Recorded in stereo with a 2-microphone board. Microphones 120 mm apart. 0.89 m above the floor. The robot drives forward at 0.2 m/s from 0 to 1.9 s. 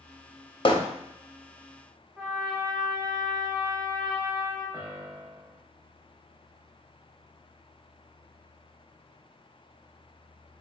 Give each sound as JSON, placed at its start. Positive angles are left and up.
{"t": 0.7, "sound": "hammering", "side_deg": 45, "distance_m": 0.6}
{"t": 2.2, "sound": "a trumpet", "side_deg": -20, "distance_m": 1.6}
{"t": 4.7, "sound": "a piano", "side_deg": -25, "distance_m": 0.7}